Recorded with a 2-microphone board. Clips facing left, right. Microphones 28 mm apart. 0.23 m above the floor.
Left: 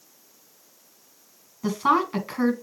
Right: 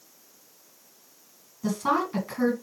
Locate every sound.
1.6 s a woman speaking: 30° left (ahead or behind), 1.9 m